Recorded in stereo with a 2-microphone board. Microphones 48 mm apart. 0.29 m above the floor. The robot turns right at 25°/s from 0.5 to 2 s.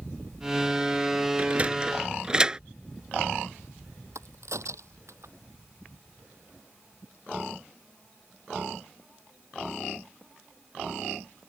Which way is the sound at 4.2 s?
80° right.